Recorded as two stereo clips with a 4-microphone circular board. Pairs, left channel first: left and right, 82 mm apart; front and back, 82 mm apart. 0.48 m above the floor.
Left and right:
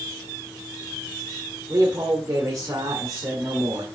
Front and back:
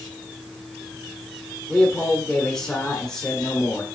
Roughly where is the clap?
I don't hear a clap.